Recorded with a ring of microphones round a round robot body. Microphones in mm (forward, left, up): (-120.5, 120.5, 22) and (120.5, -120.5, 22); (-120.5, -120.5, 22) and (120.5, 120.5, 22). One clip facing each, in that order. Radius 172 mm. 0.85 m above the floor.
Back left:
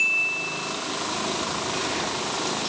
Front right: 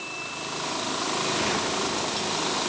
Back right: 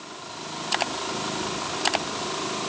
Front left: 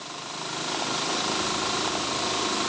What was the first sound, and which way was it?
Only background noise.